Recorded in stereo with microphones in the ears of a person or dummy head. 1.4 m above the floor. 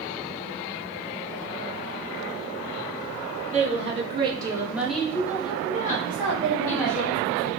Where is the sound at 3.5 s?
40° right (ahead or behind), 1.2 m; by 7.0 s 70° left (ahead or behind), 1.3 m.